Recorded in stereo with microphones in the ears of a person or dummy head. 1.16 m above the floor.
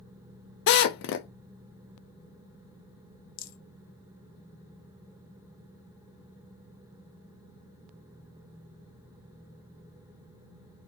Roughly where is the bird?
I don't hear a bird.